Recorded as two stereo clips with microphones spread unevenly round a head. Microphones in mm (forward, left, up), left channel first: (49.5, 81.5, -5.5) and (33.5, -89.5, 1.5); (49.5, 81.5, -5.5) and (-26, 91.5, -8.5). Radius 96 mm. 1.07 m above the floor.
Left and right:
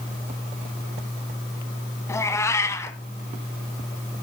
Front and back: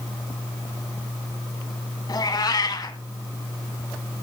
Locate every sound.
2.1 s a cat meowing: 10° left, 1.5 m